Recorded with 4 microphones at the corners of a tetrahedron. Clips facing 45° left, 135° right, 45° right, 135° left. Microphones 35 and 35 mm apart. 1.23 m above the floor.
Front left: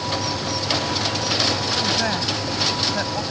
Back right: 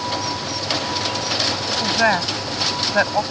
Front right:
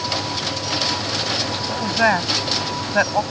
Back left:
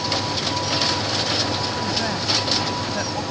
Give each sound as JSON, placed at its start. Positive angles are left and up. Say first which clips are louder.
{"t": 1.7, "sound": "a woman speaking", "louder": "back right 4 dB, front right 6 dB", "azimuth_deg": -80}